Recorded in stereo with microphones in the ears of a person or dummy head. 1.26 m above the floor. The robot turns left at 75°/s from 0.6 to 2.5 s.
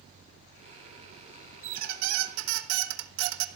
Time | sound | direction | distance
1.6 | a squeak | 35° right | 0.7 m